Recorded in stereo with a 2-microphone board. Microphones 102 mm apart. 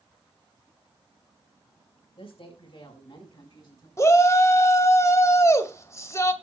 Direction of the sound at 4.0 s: 30° left (ahead or behind).